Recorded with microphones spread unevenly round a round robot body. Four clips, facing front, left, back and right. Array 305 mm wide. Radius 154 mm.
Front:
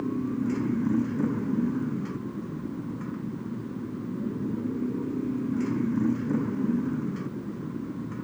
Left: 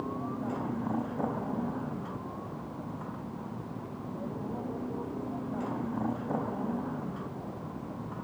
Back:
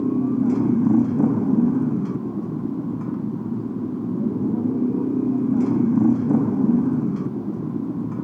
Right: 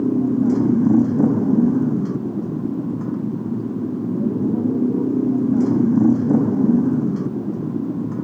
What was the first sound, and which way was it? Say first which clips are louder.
A motorcycle: right 17 dB, back 8 dB; 125° right.